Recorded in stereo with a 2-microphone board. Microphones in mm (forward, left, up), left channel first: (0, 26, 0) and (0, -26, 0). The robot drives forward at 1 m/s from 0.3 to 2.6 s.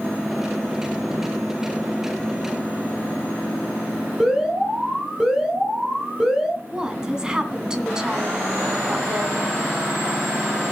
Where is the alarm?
5° right (ahead or behind), 6 m.